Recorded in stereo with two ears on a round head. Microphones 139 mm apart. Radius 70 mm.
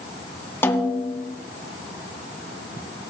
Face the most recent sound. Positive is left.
turn(degrees=15)  # may be behind; listen again after turning